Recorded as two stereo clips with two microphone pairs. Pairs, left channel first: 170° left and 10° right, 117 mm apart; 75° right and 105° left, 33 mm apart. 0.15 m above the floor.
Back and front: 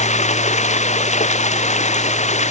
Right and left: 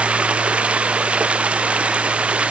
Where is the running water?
160° left.